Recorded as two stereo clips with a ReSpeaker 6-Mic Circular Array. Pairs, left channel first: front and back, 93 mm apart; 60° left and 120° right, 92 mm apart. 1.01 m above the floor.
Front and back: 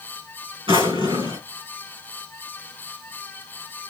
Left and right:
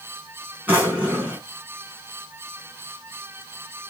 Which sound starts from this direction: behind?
A drawer, at 0.7 s.